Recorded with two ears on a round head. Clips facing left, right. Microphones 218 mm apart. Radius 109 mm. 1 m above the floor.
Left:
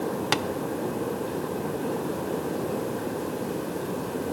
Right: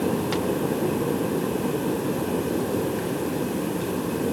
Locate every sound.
0.3 s tapping: 70° left (ahead or behind), 1.2 m